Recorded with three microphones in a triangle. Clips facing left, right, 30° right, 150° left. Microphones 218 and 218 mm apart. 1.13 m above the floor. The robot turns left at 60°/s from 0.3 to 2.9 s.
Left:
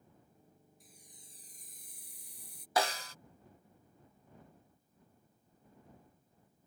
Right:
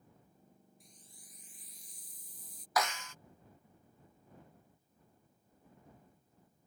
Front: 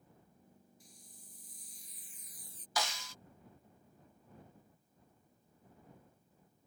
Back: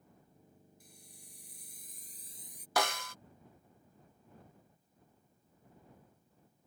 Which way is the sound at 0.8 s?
Straight behind.